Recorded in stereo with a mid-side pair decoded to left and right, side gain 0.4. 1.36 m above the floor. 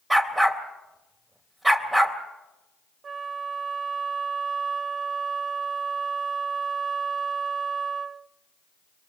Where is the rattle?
No rattle in this recording.